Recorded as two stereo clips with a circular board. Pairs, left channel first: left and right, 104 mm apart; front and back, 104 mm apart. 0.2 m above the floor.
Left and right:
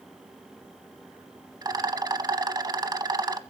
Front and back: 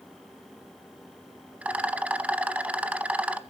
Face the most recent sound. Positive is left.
turn(degrees=-110)